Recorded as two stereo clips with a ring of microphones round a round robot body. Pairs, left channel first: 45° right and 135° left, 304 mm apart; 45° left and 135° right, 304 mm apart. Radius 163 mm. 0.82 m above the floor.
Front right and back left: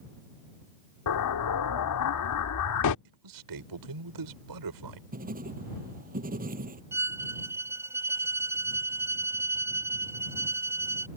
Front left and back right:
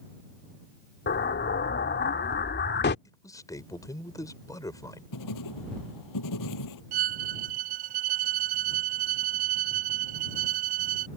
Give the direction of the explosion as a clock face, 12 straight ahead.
12 o'clock.